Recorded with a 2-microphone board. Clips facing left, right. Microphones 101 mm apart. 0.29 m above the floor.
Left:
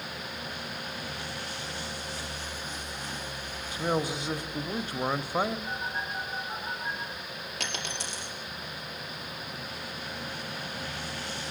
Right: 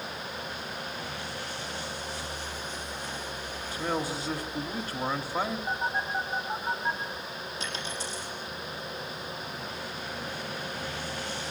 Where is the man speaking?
20° left (ahead or behind), 1.0 m.